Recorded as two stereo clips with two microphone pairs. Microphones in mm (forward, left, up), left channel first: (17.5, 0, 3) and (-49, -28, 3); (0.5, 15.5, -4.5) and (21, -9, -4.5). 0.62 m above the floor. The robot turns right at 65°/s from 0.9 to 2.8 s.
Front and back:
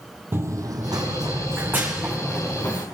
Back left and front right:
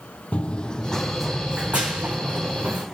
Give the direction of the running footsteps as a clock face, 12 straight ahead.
7 o'clock.